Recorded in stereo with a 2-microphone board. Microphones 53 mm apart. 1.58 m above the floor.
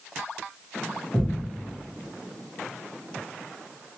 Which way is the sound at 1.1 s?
20° left (ahead or behind).